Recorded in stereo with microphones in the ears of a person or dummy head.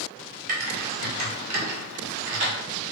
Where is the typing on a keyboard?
40° right (ahead or behind), 1.0 m.